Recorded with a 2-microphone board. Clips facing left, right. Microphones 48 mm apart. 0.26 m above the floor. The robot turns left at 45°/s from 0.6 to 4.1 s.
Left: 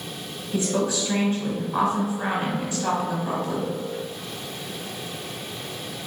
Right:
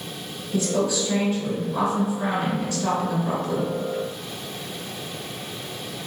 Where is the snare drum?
No snare drum in this recording.